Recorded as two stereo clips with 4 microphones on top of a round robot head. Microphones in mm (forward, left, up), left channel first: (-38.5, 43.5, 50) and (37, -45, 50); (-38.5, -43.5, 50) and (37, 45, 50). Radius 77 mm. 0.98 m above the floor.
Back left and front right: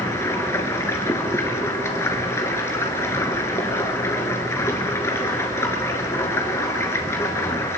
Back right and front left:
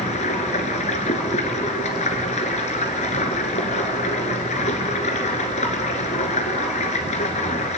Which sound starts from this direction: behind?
Running water, at 0.0 s.